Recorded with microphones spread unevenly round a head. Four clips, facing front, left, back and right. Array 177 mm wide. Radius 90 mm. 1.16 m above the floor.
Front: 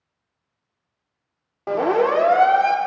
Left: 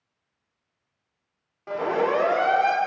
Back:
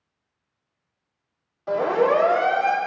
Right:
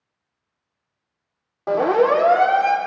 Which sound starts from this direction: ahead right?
A siren, at 1.7 s.